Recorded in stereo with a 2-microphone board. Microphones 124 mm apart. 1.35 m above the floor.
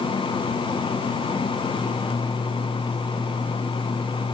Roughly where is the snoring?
No snoring in this recording.